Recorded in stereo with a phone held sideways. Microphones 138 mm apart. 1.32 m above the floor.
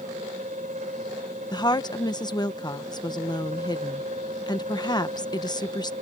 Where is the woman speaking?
30° left (ahead or behind).